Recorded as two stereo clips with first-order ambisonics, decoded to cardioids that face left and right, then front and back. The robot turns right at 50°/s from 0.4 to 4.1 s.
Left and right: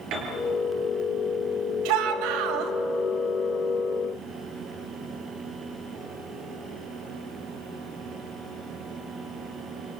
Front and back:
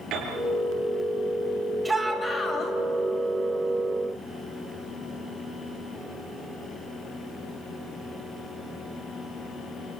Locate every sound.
0.1 s a piano: 130° right, 5.5 m
1.9 s a shout: 95° right, 4 m; by 2.7 s 55° right, 4 m